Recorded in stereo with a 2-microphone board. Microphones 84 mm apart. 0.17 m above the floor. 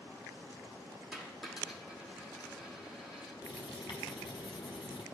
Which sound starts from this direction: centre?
A dropped coin, at 1.1 s.